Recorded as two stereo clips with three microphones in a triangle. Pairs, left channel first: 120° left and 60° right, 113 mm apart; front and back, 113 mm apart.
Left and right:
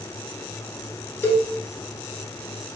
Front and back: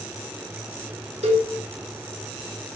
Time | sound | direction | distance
1.2 | a cowbell | 175° right | 0.8 m